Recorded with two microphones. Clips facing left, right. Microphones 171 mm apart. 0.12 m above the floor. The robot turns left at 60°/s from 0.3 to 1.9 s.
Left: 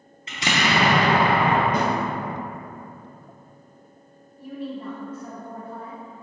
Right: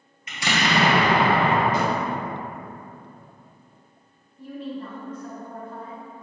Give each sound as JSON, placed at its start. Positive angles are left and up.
{"t": 0.3, "sound": "an explosion", "azimuth_deg": 30, "distance_m": 0.8}
{"t": 1.7, "sound": "a snare drum", "side_deg": 55, "distance_m": 1.0}
{"t": 4.4, "sound": "a woman speaking", "side_deg": 5, "distance_m": 1.2}